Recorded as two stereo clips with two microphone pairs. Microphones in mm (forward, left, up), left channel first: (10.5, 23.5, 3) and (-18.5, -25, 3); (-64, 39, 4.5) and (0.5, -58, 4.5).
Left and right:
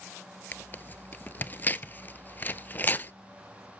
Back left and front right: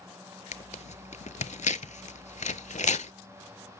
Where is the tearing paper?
115° left, 0.5 m.